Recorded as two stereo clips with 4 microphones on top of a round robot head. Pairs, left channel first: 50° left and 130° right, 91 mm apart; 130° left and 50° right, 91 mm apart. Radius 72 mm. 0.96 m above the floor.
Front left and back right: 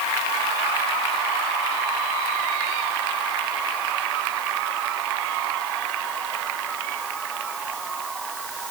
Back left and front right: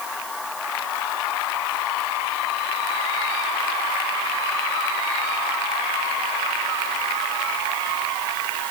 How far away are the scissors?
No scissors in this recording.